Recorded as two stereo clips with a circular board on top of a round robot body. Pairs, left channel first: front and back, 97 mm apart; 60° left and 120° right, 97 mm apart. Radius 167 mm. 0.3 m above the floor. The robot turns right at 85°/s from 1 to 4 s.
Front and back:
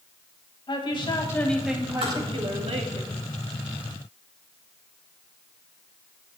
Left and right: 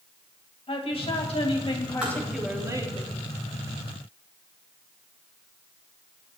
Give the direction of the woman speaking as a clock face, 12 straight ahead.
11 o'clock.